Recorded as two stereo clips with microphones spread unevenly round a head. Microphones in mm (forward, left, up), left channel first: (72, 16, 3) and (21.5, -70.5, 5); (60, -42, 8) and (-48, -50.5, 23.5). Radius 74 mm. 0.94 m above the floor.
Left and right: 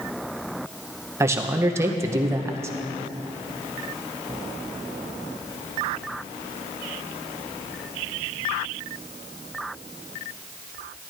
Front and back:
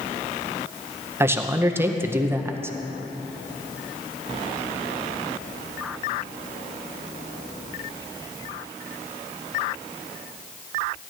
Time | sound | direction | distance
1.2 | a man speaking | 115° right | 0.7 m